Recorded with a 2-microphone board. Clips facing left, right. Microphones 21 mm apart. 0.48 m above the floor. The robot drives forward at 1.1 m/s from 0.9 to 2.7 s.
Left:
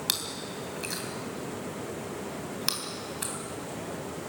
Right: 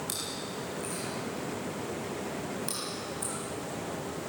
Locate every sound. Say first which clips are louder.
0.1 s chewing: left 4 dB; 65° left (ahead or behind), 3 m